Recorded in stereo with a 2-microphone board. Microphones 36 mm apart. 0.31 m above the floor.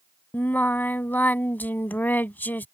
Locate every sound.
0.3 s singing: 75° left (ahead or behind)